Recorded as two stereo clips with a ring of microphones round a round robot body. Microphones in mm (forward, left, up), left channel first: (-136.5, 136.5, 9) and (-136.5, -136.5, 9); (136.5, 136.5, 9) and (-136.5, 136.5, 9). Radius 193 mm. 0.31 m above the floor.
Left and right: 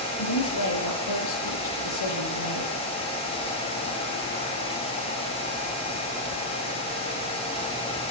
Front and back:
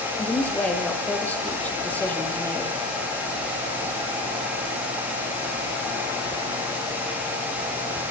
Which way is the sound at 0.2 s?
85° left.